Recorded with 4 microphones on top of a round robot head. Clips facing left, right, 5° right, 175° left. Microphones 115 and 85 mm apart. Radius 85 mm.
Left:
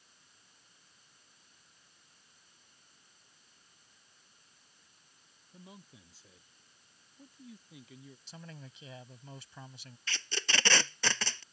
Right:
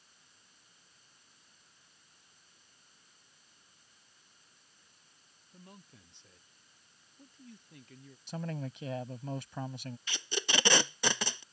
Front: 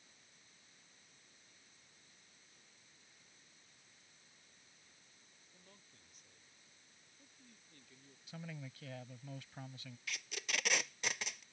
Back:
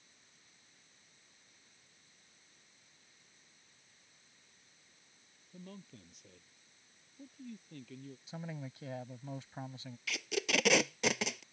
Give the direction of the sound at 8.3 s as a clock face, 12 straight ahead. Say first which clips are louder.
Right 14 dB, back 4 dB; 4 o'clock.